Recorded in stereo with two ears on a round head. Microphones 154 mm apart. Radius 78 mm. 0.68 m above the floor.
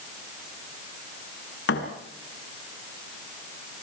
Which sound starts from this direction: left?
A thud, at 1.7 s.